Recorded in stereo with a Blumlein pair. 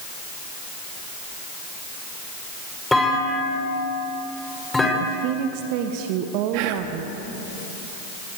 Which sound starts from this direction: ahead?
A clunk, at 2.9 s.